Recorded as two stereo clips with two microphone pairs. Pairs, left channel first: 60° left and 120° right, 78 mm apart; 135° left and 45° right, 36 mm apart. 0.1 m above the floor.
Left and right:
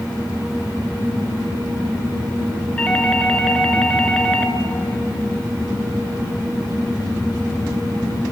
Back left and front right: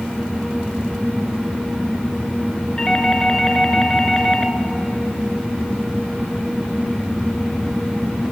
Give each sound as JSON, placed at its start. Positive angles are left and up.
{"t": 2.8, "sound": "a doorbell", "azimuth_deg": 110, "distance_m": 1.5}